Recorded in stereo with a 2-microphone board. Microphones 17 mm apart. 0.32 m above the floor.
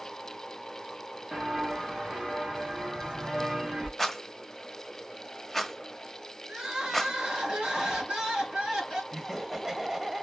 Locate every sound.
1.3 s footsteps: 35° right (ahead or behind), 2 m; by 3.9 s 80° right, 3.5 m
4.0 s a rattle: 5° right (ahead or behind), 1.2 m
6.5 s crying: 70° right (ahead or behind), 3.5 m
9.1 s laughter: 30° right (ahead or behind), 1.3 m